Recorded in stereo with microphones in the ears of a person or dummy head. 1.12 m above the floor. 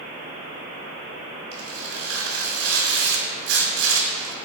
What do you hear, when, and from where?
1.5 s tearing paper: 80° right, 3.5 m